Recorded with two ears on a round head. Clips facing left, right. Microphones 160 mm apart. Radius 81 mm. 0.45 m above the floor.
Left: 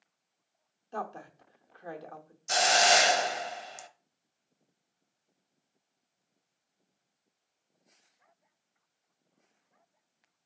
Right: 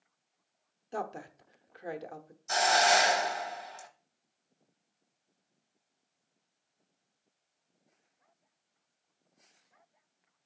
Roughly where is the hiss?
Left.